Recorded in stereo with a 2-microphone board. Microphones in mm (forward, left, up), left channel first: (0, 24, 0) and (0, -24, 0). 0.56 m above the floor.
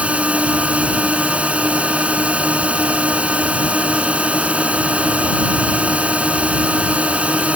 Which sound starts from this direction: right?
A drone, at 0.0 s.